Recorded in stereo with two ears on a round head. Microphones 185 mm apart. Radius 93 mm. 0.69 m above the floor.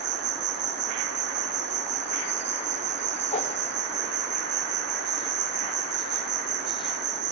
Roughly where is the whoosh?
Left.